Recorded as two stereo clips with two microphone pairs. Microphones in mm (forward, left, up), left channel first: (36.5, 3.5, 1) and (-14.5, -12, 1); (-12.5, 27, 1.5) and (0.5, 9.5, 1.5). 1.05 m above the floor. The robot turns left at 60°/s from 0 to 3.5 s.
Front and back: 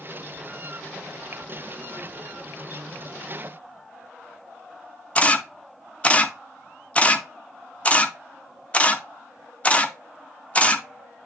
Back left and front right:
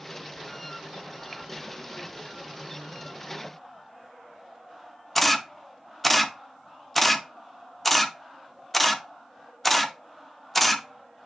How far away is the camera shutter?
About 0.8 m.